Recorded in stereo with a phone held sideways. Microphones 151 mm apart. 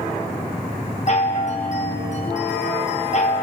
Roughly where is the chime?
Left.